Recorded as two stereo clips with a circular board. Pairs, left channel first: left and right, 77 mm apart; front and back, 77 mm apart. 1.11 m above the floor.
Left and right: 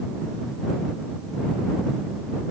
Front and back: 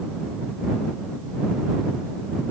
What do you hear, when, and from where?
Only background noise.